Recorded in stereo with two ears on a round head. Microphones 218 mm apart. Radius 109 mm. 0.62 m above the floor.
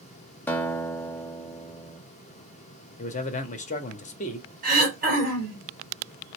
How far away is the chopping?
I don't hear chopping.